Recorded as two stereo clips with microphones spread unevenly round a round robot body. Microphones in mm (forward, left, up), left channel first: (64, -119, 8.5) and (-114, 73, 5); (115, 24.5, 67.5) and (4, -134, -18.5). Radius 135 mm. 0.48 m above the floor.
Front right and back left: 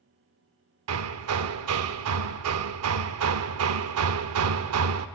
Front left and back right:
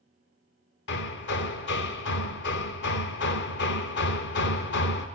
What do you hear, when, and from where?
0.9 s hammering: 110° left, 0.6 m